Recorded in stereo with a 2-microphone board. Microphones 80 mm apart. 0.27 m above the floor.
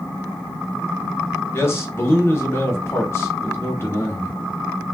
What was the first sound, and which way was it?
A man speaking, 30° left (ahead or behind).